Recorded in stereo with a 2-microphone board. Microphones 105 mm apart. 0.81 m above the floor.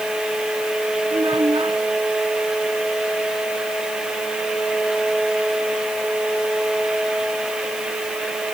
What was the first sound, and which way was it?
A child speaking, 50° right (ahead or behind).